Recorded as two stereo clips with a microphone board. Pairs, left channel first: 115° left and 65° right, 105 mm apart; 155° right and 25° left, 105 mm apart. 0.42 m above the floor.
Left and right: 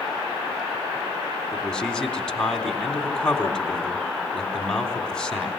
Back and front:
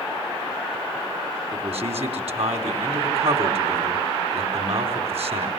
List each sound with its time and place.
1.5 s a man speaking: 30° left, 3.5 m